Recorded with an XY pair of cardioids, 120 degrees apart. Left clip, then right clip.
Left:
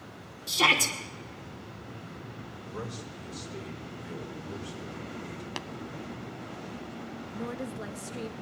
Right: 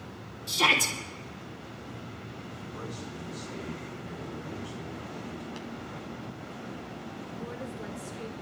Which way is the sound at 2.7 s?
55° left.